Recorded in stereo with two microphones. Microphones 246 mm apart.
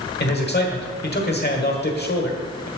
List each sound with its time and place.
0.2 s a man speaking: 40° left (ahead or behind), 1.3 m